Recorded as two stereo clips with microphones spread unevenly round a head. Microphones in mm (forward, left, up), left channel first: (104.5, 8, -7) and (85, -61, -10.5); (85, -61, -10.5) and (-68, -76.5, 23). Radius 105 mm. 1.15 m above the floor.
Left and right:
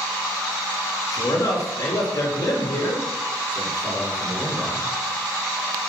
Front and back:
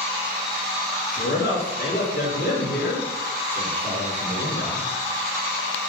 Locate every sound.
1.1 s a man speaking: 40° left, 2 m